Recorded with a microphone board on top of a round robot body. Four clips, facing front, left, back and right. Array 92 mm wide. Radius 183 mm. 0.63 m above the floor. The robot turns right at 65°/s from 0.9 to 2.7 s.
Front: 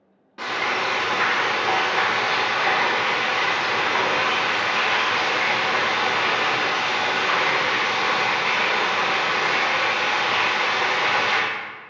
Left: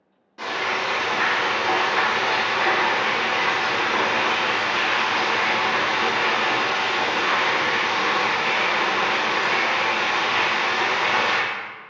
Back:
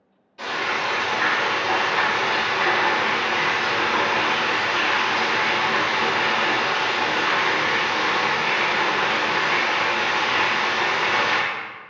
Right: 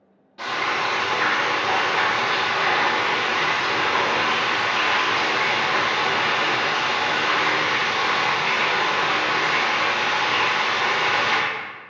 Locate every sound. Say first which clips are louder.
0.4 s frying: right 1 dB, front 1 dB; 15° left, 1.4 m; by 11.4 s 135° left, 1.4 m